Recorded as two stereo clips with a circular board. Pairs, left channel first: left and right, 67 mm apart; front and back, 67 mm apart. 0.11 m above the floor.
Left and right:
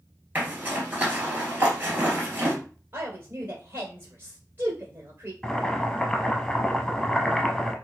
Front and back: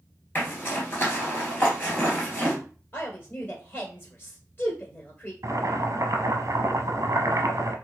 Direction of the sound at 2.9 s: 45° right.